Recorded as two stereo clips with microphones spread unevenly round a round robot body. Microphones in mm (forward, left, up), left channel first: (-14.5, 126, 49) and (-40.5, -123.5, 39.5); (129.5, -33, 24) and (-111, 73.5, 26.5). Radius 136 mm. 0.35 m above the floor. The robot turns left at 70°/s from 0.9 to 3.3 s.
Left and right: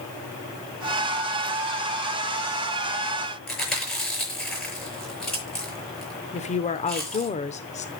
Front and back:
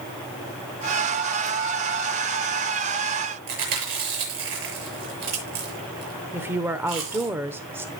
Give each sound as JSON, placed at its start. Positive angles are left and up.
{"t": 3.5, "sound": "chewing", "azimuth_deg": 170, "distance_m": 6.5}
{"t": 6.3, "sound": "a woman speaking", "azimuth_deg": 85, "distance_m": 0.8}